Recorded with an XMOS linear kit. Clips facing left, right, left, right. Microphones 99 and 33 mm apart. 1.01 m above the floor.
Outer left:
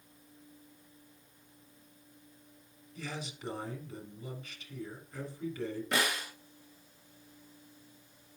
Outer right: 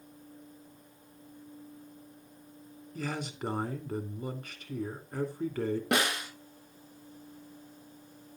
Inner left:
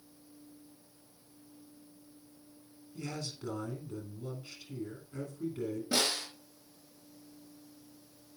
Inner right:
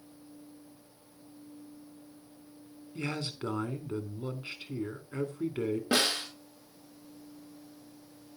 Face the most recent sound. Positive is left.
turn(degrees=-70)  # may be behind; listen again after turning